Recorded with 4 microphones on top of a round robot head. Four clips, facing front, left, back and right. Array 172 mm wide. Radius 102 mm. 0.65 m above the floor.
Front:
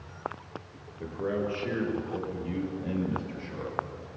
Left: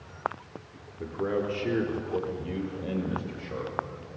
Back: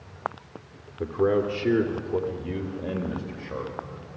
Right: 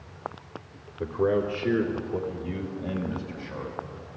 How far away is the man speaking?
About 2 m.